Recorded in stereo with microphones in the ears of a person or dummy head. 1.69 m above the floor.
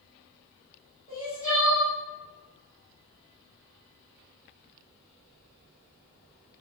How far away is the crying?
About 1.8 m.